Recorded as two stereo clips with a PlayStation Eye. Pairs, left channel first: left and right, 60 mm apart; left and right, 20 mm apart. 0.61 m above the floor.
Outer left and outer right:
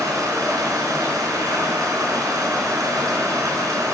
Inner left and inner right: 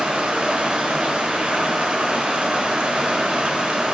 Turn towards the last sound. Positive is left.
turn(degrees=-85)